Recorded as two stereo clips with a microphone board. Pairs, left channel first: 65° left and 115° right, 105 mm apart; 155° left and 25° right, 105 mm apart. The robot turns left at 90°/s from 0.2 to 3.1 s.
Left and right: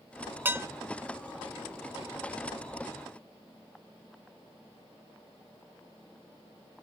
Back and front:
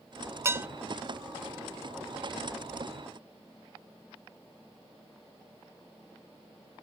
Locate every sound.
0.5 s dishes clattering: 60° right, 0.5 m; by 0.7 s 80° right, 0.5 m